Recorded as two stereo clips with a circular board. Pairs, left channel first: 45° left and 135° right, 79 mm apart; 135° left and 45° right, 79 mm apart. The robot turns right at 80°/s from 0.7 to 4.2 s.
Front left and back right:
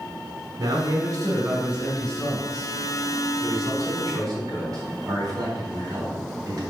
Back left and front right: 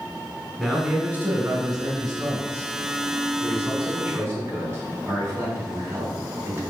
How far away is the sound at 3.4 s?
About 4 m.